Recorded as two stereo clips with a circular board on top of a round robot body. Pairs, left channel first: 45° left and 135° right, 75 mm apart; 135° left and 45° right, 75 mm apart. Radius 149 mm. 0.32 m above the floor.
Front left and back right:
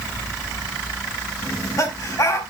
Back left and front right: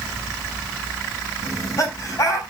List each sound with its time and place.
1.4 s laughter: 90° left, 5 m